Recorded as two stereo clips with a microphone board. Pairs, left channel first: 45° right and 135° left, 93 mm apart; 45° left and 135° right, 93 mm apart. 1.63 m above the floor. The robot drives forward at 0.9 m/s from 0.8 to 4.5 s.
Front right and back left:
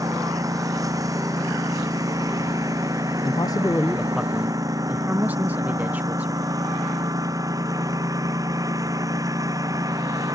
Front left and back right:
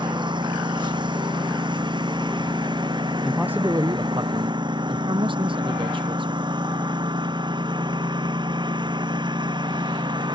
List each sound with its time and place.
0.0 s a lawn mower: 170° right
3.2 s a man speaking: 45° right; by 6.4 s 155° right